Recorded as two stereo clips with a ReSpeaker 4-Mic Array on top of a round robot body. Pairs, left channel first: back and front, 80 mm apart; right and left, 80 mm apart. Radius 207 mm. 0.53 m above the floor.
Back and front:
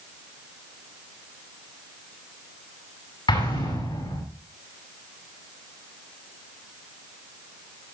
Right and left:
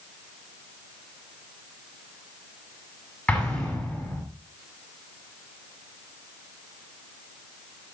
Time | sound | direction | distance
3.3 | an explosion | 170° right | 6.5 m